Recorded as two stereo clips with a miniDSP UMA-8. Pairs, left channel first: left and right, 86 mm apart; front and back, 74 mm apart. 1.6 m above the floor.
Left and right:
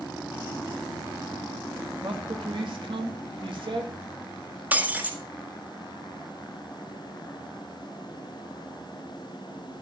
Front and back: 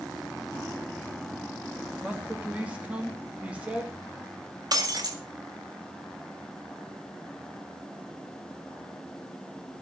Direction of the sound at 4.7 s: 160° right.